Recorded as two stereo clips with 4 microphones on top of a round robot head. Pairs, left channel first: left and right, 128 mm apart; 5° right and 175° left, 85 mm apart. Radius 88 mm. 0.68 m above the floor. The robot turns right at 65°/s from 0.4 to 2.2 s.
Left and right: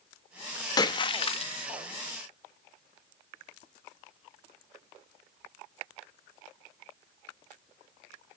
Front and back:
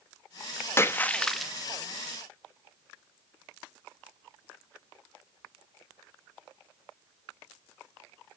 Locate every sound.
0.8 s a splash: 45° left, 0.7 m; by 1.5 s 95° left, 0.7 m